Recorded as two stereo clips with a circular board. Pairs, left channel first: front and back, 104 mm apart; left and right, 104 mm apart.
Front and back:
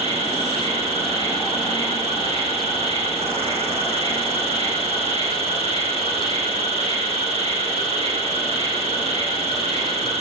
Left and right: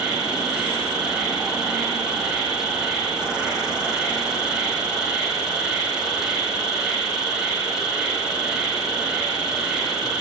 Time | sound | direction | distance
0.0 | an insect | 175° right | 3.5 m